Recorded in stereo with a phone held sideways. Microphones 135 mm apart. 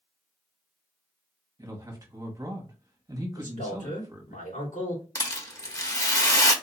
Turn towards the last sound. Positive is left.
turn(degrees=25)  # may be behind; listen again after turning